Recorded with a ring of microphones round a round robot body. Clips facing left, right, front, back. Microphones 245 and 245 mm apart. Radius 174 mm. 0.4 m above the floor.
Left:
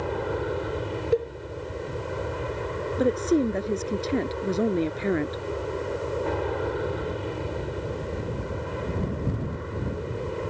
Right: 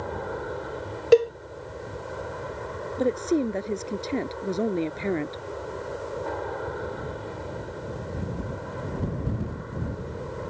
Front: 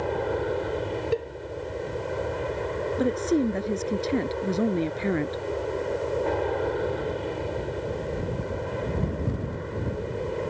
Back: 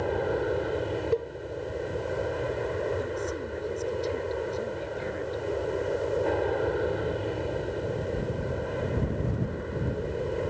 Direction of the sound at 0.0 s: 95° left.